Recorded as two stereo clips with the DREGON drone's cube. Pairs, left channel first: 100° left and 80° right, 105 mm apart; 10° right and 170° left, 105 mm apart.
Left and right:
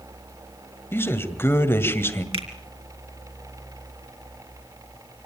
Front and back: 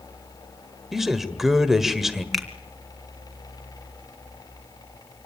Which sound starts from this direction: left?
A man speaking, at 0.9 s.